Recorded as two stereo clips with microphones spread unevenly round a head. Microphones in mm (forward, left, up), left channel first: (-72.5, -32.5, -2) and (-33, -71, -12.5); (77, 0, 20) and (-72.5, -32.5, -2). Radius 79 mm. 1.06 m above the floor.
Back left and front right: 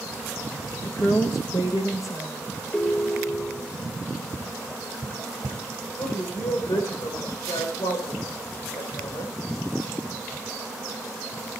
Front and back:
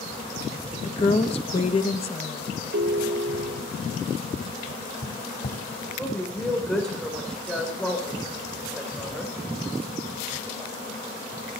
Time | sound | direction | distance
0.8 | a woman speaking | 70° left | 1.2 m
2.7 | a ringtone | 160° right | 1.7 m
4.3 | tapping | 15° right | 3 m
6.0 | a woman speaking | 100° left | 3.5 m